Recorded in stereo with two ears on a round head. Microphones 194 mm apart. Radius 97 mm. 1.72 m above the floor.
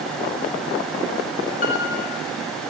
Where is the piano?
40° left (ahead or behind), 7.5 m.